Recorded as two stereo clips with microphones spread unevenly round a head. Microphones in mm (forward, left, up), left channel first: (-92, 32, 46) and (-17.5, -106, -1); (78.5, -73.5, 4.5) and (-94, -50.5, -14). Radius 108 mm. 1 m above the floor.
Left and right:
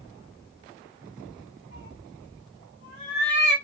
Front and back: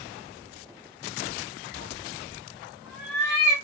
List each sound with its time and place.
1.7 s a cat meowing: 95° left, 2.0 m; by 3.5 s 70° left, 2 m